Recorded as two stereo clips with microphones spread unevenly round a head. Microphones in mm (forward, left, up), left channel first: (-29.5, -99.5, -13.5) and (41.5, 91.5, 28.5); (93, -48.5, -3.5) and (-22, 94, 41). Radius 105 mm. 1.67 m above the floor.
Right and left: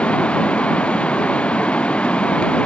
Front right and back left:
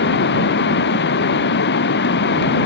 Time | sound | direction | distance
0.0 | running water | 25° right | ?